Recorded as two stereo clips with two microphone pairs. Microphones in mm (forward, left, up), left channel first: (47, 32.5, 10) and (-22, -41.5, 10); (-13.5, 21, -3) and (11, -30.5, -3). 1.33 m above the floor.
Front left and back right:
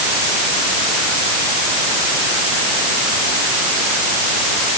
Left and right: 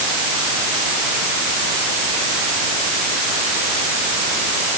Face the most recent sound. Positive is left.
No sound to turn to.